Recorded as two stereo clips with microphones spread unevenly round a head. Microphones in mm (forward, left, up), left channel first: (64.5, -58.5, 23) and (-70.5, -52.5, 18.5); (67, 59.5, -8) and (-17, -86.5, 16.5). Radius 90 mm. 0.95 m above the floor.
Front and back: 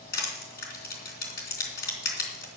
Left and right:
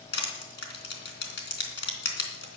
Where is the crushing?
40° left, 3.5 m.